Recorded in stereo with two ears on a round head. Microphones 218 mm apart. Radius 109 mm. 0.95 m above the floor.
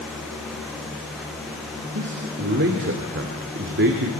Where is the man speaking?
45° right (ahead or behind), 2.5 m.